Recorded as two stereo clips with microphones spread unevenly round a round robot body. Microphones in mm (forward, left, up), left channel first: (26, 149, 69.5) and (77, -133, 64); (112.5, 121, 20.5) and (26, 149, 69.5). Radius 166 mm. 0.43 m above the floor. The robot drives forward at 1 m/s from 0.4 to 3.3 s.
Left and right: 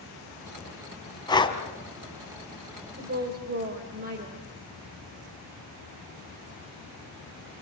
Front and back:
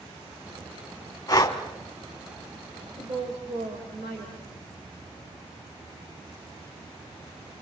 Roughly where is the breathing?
Ahead left.